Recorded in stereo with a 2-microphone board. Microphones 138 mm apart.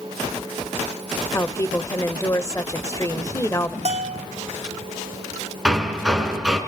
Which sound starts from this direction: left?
A woman speaking, at 1.3 s.